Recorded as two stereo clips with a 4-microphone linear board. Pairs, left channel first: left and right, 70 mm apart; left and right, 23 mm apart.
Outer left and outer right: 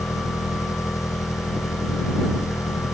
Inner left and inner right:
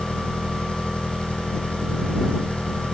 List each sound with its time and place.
0.0 s an engine running: 50° left (ahead or behind)